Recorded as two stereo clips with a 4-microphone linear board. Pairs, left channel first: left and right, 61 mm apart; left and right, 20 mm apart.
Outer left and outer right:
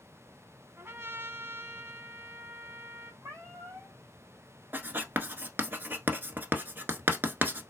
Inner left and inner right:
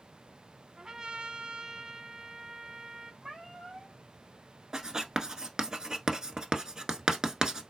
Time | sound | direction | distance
0.8 | a trumpet | 45° right (ahead or behind) | 0.6 m
3.2 | a cat meowing | 45° right (ahead or behind) | 2.5 m
4.7 | writing | 35° right (ahead or behind) | 0.8 m